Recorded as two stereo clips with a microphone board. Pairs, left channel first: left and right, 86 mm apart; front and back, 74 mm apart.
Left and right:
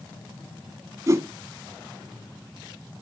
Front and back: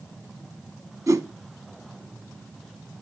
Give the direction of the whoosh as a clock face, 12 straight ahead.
5 o'clock.